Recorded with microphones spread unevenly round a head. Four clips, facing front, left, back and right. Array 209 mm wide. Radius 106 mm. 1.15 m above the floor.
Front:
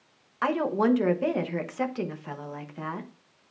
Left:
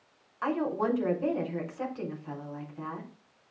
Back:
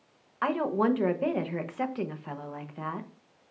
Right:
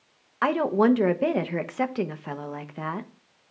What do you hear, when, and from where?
0.4 s a woman speaking: 75° right, 1.0 m